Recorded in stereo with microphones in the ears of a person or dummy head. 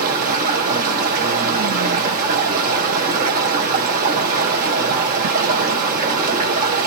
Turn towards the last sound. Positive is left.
turn(degrees=-50)  # may be behind; listen again after turning